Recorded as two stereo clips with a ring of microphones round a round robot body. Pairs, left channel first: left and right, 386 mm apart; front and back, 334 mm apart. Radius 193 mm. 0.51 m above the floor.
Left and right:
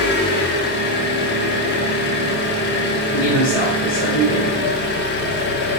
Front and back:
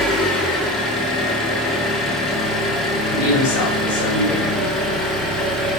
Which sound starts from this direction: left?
An engine running, at 0.0 s.